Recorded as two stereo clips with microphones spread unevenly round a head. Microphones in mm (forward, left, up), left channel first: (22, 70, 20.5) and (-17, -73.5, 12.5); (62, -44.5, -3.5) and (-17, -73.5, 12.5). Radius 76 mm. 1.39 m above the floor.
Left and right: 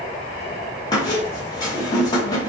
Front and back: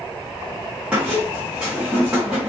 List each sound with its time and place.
0.9 s a squeak: 130° left, 0.8 m